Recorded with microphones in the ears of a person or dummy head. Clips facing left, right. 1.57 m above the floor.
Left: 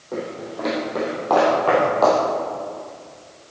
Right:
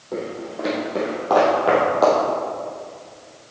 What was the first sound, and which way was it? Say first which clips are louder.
Footsteps: right 1 dB; 5° right (ahead or behind).